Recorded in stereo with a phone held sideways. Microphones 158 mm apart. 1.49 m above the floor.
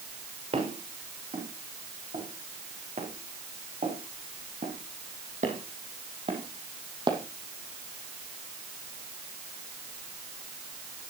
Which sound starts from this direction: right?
Footsteps, at 0.5 s.